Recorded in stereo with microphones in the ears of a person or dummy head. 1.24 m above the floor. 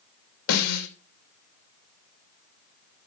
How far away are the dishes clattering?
No dishes clattering in this recording.